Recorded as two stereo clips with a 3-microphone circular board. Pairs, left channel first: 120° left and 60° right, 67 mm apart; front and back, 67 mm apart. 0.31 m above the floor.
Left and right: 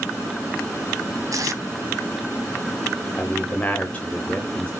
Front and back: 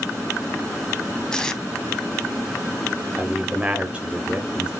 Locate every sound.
1.3 s tape being pulled: 80° right, 0.8 m
3.2 s a man speaking: 140° left, 0.9 m